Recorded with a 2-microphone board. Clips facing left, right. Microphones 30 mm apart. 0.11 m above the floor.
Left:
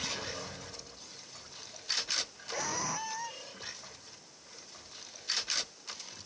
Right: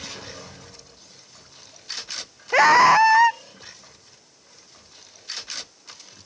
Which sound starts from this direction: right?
A scream, at 2.5 s.